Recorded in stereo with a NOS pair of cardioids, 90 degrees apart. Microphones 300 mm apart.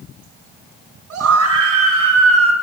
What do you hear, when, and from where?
1.1 s a scream: 60° right, 7 m; by 2.5 s 65° right, 6 m